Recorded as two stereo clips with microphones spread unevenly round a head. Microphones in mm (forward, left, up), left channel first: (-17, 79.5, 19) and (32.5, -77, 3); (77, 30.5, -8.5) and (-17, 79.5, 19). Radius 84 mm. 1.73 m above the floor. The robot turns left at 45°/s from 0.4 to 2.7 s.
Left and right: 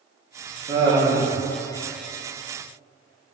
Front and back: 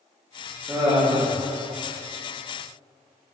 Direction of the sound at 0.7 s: 130° right.